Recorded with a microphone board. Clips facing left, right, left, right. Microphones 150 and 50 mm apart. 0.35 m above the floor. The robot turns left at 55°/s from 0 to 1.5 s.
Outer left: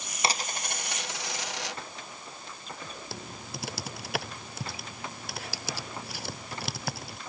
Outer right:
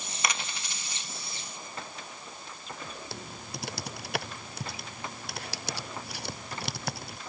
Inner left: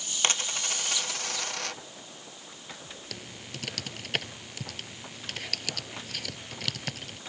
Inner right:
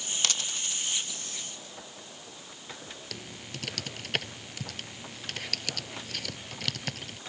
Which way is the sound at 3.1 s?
Centre (ahead or behind).